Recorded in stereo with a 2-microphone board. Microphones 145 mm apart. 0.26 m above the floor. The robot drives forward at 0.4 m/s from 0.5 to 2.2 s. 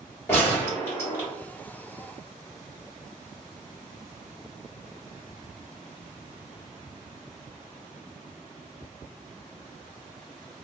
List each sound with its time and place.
0.3 s a gunshot: 20° left (ahead or behind), 1.7 m